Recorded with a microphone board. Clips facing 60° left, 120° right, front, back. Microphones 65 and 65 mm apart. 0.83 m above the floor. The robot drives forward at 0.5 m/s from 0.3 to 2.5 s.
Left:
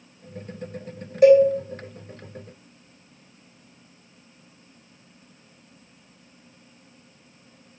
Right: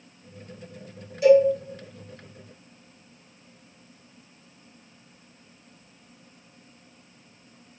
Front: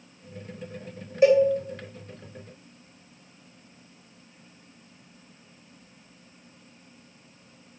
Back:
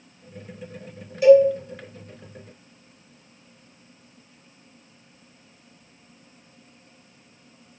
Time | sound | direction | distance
1.2 | a cowbell | 50° left | 1.2 m